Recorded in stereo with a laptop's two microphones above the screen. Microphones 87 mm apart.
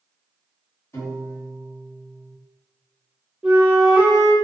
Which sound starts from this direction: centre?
A flute, at 3.4 s.